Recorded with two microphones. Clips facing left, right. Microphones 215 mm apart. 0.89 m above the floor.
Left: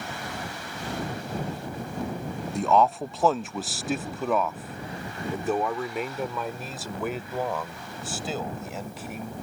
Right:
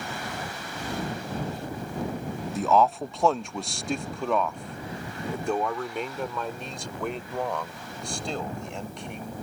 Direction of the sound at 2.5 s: Centre (ahead or behind).